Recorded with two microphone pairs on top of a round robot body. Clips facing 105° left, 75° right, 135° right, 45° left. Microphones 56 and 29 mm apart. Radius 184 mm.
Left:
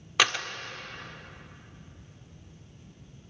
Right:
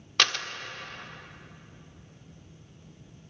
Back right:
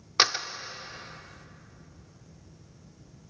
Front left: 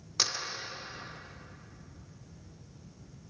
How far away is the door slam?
About 1.7 m.